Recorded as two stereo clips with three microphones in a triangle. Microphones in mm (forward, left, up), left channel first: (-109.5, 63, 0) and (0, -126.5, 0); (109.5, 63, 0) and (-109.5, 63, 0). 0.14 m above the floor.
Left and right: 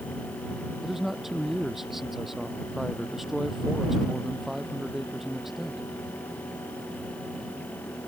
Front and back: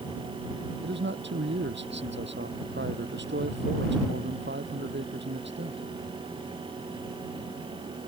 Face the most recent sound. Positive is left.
turn(degrees=-150)